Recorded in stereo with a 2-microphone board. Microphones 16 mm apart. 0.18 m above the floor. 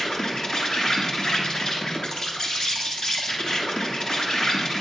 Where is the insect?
55° left (ahead or behind), 1.2 m.